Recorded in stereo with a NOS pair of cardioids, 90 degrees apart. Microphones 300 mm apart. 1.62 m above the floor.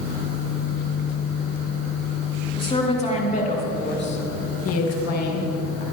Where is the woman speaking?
15° left, 3.5 m; by 5.8 s 80° left, 2 m.